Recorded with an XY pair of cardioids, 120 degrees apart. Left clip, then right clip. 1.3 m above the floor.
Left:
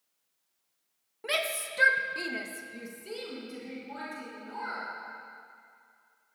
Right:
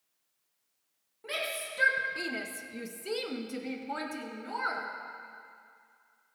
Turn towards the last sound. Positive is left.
turn(degrees=-70)